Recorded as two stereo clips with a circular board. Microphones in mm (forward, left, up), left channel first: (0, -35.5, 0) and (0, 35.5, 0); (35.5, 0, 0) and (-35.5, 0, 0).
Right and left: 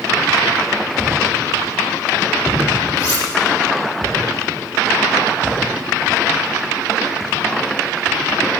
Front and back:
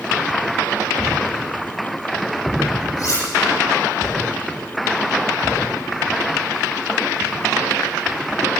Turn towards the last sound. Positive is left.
turn(degrees=-50)